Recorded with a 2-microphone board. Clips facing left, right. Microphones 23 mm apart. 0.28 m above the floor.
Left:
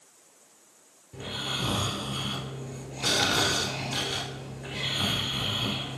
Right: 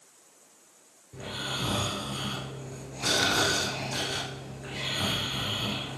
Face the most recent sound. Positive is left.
turn(degrees=10)  # may be behind; listen again after turning